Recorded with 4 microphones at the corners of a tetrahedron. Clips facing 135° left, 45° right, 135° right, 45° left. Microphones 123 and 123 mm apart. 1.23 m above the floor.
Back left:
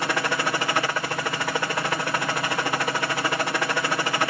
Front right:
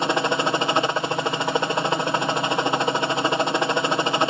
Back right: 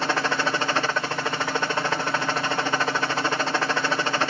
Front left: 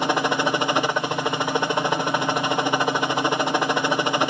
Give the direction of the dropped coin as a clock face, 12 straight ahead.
No dropped coin in this recording.